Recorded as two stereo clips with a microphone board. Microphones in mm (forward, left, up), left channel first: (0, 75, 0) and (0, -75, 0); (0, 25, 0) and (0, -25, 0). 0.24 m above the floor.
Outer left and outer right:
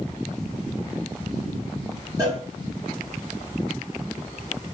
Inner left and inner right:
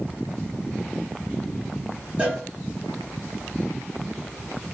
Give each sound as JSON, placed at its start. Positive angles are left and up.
{"t": 2.2, "sound": "a cowbell", "side_deg": -25, "distance_m": 1.4}